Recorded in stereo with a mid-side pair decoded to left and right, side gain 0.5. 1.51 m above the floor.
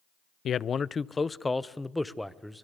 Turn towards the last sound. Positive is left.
turn(degrees=0)